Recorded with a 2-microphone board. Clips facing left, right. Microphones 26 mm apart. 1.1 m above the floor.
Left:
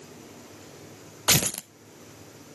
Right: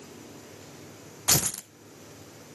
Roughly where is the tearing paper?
Left.